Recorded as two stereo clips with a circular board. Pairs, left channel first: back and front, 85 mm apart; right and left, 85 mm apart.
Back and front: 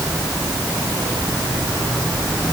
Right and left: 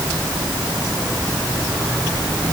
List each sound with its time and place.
Only background noise.